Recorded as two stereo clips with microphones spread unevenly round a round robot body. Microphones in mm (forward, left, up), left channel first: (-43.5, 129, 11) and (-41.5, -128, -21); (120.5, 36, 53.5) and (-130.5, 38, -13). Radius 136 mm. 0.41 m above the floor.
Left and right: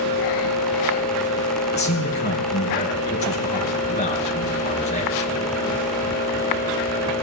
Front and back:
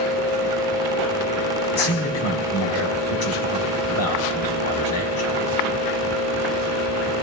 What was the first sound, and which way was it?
A man speaking, 30° left.